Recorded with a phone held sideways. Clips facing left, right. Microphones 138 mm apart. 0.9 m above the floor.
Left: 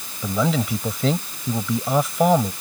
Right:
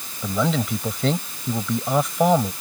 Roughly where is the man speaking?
Centre.